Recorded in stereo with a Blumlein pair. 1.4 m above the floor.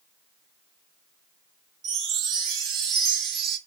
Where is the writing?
No writing in this recording.